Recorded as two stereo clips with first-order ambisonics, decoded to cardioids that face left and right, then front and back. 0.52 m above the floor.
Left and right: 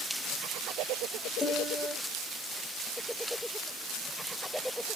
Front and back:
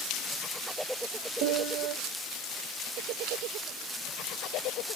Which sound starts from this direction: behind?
A piano, at 1.4 s.